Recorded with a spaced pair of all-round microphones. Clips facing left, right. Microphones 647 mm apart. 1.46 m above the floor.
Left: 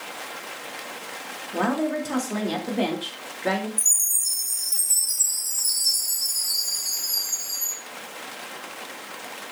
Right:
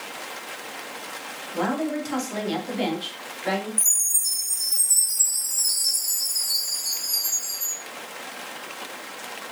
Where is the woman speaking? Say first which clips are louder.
Left 1 dB; 70° left (ahead or behind), 3.5 m.